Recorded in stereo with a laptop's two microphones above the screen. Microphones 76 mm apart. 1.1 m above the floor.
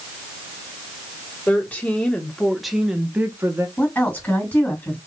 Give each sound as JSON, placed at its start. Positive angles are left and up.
{"t": 1.5, "sound": "a woman speaking", "side_deg": 20, "distance_m": 1.9}
{"t": 3.8, "sound": "a woman speaking", "side_deg": 20, "distance_m": 2.0}